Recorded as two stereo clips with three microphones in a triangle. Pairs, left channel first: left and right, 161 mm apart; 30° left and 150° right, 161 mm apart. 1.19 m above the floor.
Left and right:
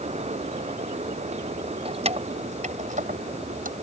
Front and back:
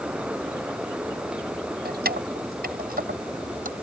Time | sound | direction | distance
1.9 | keys jangling | 140° right | ?